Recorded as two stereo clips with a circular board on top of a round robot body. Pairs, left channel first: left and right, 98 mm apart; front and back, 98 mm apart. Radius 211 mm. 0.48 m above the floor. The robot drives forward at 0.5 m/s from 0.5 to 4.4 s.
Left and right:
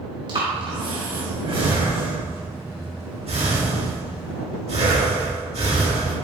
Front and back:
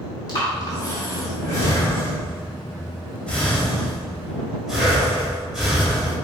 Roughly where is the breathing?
Ahead right.